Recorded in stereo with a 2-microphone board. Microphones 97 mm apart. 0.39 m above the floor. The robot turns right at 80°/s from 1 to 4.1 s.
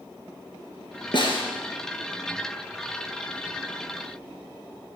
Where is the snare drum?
55° left (ahead or behind), 3 m; by 1.4 s 75° left (ahead or behind), 3 m.